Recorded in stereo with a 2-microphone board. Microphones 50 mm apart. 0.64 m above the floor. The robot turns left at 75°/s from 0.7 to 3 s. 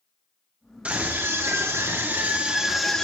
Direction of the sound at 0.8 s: 30° right.